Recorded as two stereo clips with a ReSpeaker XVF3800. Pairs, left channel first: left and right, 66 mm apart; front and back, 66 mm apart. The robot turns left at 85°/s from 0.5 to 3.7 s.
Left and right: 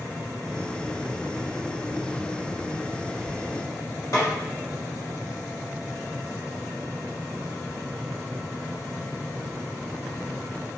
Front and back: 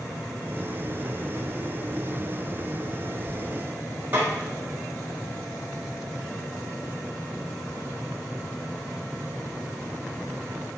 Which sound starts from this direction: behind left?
A snare drum, at 4.1 s.